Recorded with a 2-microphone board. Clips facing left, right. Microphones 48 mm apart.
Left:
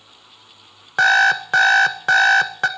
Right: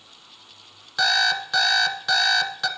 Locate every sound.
1.0 s an alarm clock: 45° left (ahead or behind), 0.6 m